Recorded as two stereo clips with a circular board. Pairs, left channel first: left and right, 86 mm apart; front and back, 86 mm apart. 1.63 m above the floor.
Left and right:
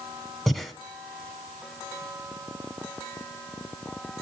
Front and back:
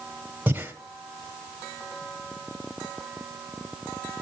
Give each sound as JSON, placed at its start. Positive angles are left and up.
{"t": 0.5, "sound": "breathing", "azimuth_deg": 170, "distance_m": 1.5}